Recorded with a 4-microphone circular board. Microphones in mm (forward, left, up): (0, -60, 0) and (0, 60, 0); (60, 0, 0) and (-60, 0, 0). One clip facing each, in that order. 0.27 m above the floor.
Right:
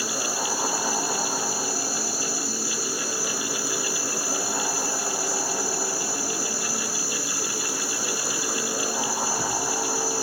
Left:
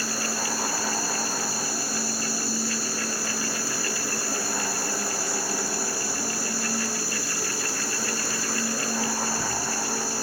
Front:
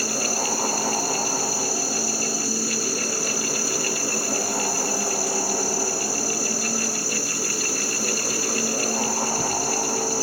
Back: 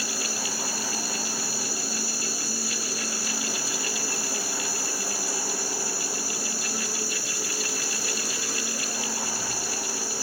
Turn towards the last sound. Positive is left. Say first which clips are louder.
# right 1 dB, front 7 dB
turn(degrees=0)